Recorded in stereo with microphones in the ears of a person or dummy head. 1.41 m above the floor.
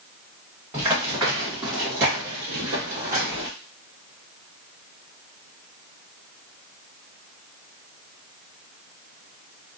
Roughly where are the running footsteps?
Right.